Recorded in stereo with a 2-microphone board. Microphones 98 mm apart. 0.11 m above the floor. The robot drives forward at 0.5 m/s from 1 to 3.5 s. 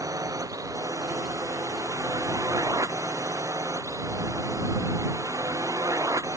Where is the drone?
35° right (ahead or behind).